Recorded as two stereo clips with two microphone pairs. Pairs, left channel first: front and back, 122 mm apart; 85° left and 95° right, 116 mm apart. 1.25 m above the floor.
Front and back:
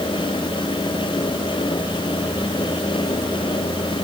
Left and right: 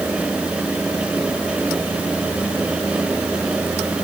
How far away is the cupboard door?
I don't hear a cupboard door.